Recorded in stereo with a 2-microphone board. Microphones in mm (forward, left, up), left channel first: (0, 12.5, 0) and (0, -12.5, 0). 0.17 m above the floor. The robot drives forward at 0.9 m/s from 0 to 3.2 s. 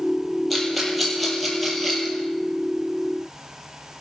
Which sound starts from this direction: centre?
A rattle, at 0.5 s.